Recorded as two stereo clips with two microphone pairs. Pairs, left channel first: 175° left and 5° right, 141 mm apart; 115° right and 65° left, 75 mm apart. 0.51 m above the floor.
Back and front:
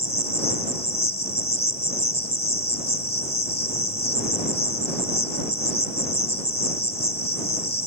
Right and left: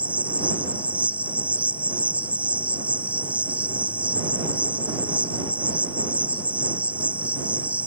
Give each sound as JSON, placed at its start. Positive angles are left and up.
{"t": 0.0, "sound": "an insect", "azimuth_deg": 140}